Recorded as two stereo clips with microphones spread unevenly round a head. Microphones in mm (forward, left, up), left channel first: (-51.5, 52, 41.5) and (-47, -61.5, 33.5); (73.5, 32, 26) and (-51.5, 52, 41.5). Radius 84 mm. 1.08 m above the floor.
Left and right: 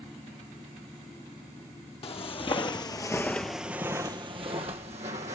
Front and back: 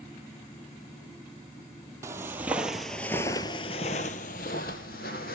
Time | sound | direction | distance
2.0 | footsteps | 115° left | 1.8 m